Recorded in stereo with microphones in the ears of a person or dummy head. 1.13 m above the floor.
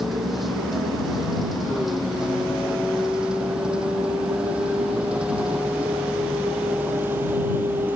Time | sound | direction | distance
0.0 | a vehicle | centre (ahead or behind) | ?